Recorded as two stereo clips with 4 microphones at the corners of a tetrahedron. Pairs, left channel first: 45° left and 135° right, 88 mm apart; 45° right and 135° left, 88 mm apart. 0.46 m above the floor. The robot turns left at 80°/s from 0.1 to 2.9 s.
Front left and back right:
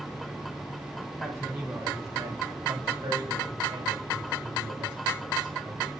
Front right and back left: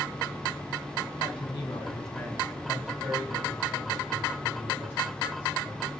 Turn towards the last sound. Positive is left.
turn(degrees=-160)